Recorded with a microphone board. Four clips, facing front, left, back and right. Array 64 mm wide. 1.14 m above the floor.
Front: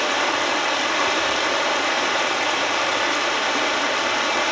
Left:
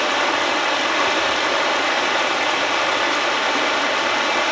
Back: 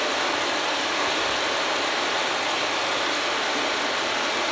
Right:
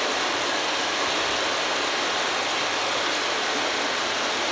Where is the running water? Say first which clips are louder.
Left 6 dB, front 3 dB; 60° left, 1.6 m.